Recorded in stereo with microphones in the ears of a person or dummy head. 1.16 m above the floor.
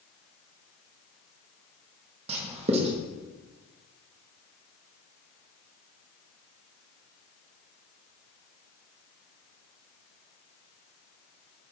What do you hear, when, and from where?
2.3 s writing: 35° right (ahead or behind), 1.0 m